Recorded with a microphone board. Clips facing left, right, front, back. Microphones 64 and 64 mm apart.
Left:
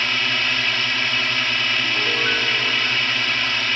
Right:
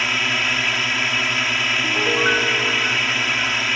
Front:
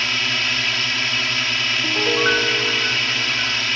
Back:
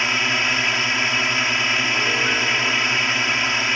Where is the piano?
35° right.